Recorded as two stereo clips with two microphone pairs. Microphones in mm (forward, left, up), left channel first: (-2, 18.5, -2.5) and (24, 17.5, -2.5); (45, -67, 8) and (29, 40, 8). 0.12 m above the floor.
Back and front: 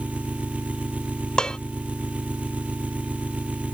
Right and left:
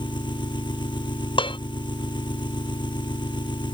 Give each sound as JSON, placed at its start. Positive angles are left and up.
{"t": 0.0, "sound": "an engine running", "azimuth_deg": -35}
{"t": 1.4, "sound": "dishes clattering", "azimuth_deg": -120}